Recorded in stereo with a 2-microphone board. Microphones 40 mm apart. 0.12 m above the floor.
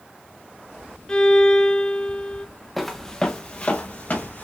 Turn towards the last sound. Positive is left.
turn(degrees=50)  # may be behind; listen again after turning